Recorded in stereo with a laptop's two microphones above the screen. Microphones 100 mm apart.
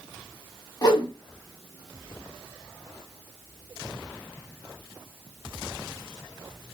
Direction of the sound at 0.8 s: 45° left (ahead or behind).